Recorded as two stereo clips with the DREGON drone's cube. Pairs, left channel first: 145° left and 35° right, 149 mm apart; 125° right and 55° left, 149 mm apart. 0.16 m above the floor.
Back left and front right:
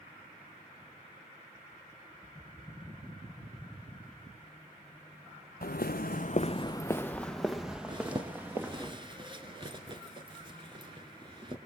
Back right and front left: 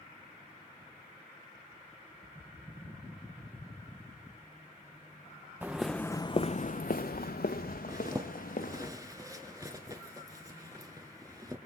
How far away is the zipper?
About 2.0 m.